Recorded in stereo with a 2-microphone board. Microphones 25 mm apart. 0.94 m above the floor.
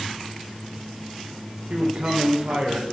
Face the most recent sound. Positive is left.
turn(degrees=-55)  # may be behind; listen again after turning